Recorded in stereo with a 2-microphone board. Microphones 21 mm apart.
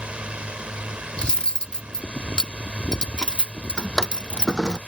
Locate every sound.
0.0 s a drone: 65° right (ahead or behind)
1.2 s cutlery clinking: 55° left (ahead or behind)
3.8 s a drawer: 35° left (ahead or behind)